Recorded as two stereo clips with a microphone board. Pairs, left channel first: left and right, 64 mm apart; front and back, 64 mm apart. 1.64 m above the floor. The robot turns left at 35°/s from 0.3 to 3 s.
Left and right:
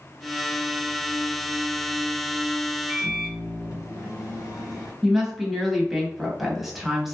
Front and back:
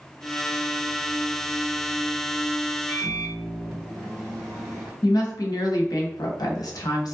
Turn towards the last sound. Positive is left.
turn(degrees=-5)